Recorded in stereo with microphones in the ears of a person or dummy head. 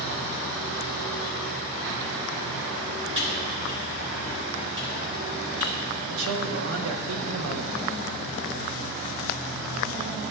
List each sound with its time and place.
3.1 s typing on a keyboard: 25° right (ahead or behind), 3 m
6.1 s a man speaking: 85° right, 1.0 m